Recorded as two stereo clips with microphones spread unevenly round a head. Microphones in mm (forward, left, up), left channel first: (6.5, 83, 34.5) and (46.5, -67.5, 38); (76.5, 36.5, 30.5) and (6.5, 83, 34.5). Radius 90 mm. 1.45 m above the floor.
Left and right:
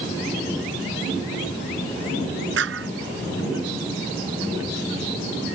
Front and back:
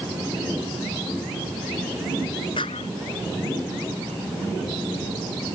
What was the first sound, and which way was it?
A clap, 90° right.